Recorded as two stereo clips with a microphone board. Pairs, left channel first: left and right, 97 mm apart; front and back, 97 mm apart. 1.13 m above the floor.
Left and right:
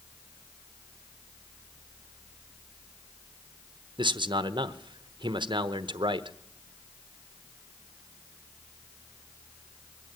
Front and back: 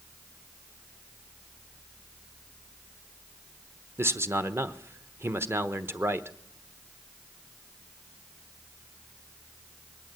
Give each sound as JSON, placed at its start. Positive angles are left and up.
{"t": 4.0, "sound": "a man speaking", "azimuth_deg": -120, "distance_m": 1.0}